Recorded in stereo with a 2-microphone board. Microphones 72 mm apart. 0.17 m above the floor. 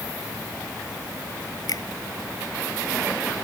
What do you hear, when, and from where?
1.7 s a finger snap: 60° left (ahead or behind)